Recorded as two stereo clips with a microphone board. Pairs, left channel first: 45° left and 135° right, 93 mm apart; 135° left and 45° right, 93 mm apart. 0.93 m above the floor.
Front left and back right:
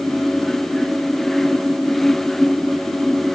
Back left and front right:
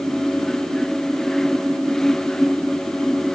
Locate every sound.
Only background noise.